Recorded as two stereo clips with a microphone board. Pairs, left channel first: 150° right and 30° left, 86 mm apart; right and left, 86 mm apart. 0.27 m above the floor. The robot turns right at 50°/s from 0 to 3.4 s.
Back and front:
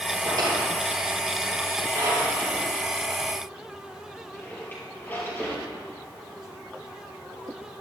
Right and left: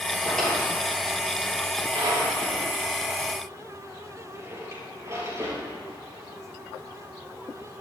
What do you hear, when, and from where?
0.2 s a drawer: 15° right, 4 m; by 5.6 s 145° left, 4 m